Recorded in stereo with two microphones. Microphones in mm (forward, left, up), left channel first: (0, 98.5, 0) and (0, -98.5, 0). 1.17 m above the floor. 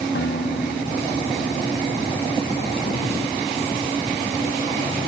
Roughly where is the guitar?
Left.